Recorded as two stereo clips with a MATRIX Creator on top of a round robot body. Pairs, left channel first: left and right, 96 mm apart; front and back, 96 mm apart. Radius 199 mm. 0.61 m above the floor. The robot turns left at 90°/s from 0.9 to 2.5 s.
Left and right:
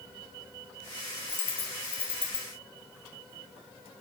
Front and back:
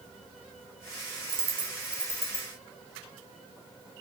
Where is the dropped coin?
140° left, 1.3 m; by 2.5 s 30° left, 1.3 m.